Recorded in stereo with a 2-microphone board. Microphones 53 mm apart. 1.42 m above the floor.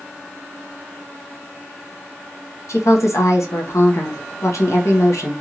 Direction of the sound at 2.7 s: 75° left (ahead or behind).